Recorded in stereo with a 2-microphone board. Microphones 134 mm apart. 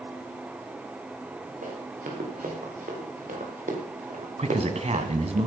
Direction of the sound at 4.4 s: 55° right (ahead or behind).